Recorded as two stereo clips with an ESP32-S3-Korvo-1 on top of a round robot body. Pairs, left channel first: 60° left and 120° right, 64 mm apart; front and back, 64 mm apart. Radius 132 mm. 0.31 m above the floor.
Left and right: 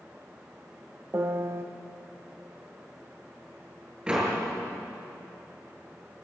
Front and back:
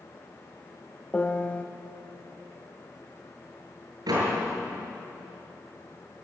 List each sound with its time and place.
1.1 s a piano: 65° right, 1.2 m
4.1 s a door slam: 165° left, 6.5 m